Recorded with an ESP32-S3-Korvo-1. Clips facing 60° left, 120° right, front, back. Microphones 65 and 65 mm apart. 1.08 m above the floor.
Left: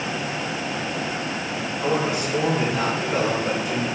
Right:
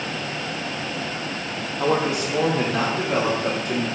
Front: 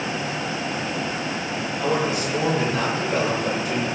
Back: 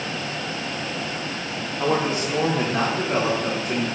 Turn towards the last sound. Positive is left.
turn(degrees=-135)